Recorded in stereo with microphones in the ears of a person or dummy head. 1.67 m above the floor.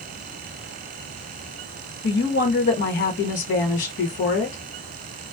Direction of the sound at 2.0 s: 50° left (ahead or behind).